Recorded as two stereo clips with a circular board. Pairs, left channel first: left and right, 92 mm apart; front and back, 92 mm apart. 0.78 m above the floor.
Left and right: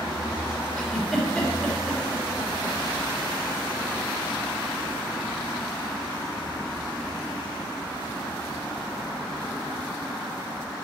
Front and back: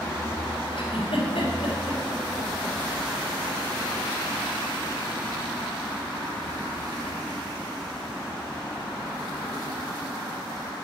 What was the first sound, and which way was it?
A giggle, 10° left.